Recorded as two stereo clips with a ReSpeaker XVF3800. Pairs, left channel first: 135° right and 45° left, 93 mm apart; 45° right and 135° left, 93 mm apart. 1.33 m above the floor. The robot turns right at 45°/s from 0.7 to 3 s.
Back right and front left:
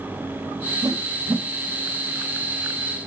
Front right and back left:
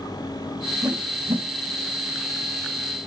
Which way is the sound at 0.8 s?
90° left.